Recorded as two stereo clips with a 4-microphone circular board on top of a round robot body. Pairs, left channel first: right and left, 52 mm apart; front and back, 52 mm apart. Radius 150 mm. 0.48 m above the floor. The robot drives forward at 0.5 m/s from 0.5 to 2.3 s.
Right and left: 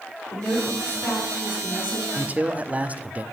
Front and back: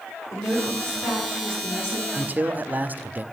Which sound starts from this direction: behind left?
A man speaking, at 2.1 s.